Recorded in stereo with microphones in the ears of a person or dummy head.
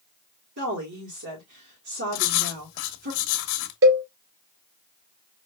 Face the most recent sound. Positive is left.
turn(degrees=-65)  # may be behind; listen again after turning